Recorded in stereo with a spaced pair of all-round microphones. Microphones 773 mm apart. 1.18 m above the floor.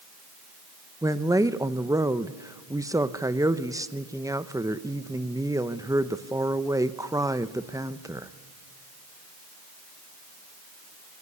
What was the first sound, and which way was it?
A woman speaking, 5° right (ahead or behind).